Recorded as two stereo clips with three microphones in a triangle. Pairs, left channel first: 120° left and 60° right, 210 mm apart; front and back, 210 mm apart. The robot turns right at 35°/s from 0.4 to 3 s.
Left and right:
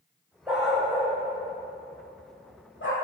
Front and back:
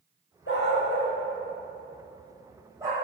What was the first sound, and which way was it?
A dog barking, 20° left.